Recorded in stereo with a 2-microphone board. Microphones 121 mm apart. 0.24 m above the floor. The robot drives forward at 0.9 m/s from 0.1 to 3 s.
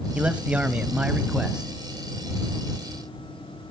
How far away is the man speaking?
About 1.0 m.